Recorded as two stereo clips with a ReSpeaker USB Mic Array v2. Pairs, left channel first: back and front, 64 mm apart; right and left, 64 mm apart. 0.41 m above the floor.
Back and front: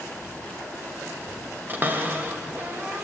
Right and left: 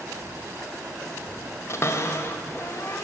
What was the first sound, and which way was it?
A cupboard door, 55° right.